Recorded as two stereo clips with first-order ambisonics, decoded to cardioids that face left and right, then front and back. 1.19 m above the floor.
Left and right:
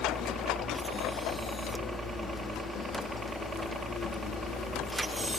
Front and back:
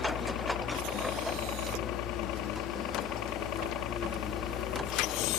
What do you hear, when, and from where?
0.0 s a helicopter: 15° right